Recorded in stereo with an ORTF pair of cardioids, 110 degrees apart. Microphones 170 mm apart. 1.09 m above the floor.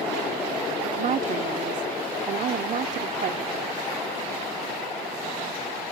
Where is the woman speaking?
45° right.